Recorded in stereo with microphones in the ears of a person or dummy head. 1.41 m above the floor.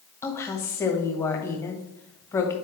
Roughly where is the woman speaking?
Left.